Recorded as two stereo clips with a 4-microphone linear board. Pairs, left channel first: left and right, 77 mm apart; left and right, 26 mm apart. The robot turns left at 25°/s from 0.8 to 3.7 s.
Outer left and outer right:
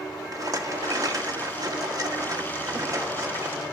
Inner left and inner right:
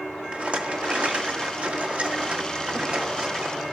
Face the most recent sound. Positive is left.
turn(degrees=-140)